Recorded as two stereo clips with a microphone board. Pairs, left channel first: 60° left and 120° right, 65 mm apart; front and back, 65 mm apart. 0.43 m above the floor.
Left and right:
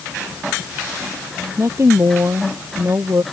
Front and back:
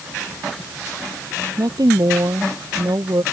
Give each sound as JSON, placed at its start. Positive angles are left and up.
{"t": 1.6, "sound": "a woman speaking", "azimuth_deg": -165}